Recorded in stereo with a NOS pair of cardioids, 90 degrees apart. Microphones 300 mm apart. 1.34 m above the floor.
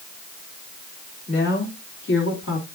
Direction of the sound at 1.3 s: 35° left.